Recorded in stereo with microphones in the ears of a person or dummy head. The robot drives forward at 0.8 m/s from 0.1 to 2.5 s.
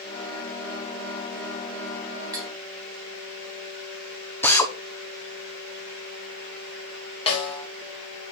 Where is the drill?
10° left (ahead or behind), 0.9 m.